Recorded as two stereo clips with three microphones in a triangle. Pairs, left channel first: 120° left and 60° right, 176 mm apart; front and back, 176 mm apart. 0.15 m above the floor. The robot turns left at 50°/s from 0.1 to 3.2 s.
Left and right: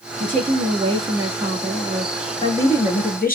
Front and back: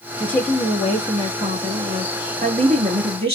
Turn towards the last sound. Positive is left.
turn(degrees=135)